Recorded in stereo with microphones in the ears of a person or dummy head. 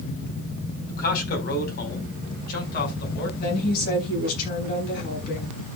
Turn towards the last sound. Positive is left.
turn(degrees=60)  # may be behind; listen again after turning